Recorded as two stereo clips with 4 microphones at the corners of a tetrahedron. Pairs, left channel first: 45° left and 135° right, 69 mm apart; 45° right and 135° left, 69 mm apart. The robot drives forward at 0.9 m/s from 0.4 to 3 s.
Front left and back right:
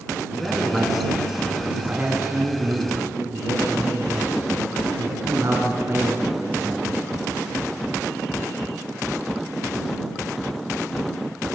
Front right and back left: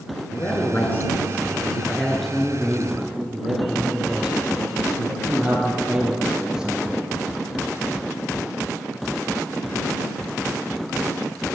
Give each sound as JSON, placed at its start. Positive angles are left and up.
{"t": 0.3, "sound": "a man speaking", "azimuth_deg": -35, "distance_m": 2.0}